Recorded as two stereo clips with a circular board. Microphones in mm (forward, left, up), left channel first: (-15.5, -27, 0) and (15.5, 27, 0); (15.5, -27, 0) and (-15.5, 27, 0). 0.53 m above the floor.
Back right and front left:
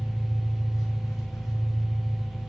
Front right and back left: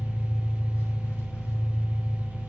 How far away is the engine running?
About 4 m.